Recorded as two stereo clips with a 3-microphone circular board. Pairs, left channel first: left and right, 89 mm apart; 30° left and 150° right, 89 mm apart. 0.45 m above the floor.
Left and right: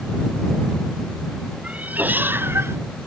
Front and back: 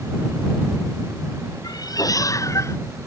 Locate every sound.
1.6 s a cat meowing: 15° right; by 2.8 s 30° right